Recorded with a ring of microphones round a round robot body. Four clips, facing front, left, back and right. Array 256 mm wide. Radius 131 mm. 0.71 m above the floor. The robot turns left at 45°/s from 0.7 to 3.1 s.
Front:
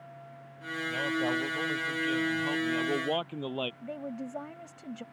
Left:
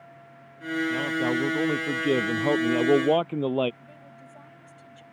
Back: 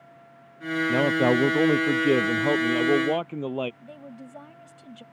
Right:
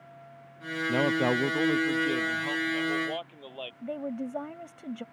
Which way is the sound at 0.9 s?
155° right.